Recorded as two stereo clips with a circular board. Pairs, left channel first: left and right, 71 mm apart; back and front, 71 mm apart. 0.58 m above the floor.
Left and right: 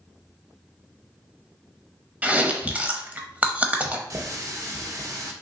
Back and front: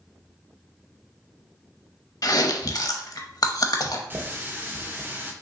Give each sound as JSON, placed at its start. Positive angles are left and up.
{"t": 2.2, "sound": "chewing", "azimuth_deg": -160, "distance_m": 0.7}
{"t": 4.1, "sound": "a running tap", "azimuth_deg": -55, "distance_m": 0.8}